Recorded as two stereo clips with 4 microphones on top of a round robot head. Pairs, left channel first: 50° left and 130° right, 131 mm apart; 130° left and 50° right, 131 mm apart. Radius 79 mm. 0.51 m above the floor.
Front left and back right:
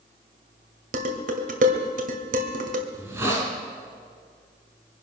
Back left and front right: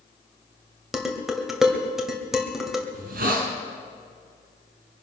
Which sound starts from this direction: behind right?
Dishes clattering, at 0.9 s.